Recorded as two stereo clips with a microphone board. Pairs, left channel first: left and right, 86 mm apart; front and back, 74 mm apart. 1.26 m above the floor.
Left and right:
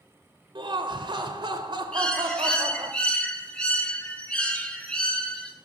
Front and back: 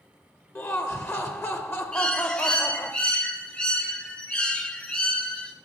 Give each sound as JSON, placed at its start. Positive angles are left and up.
{"t": 0.6, "sound": "laughter", "azimuth_deg": -55, "distance_m": 0.7}
{"t": 1.9, "sound": "a bird", "azimuth_deg": 40, "distance_m": 0.9}